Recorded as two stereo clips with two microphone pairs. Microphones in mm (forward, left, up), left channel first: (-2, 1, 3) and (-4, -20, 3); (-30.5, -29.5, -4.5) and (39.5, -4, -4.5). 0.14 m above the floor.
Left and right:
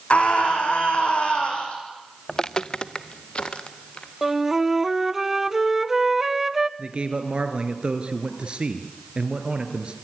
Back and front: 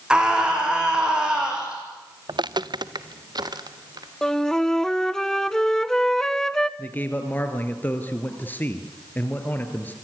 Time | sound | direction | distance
0.1 | a scream | 95° left | 6 m
2.3 | footsteps | 15° left | 0.5 m
4.2 | a flute | 95° right | 0.6 m
6.8 | a man speaking | 100° right | 2.5 m